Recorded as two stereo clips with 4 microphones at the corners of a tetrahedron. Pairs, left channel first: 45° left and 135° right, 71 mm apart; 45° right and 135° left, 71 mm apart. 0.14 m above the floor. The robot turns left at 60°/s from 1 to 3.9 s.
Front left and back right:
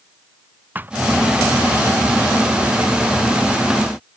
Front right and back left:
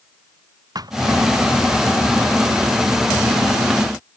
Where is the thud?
160° left.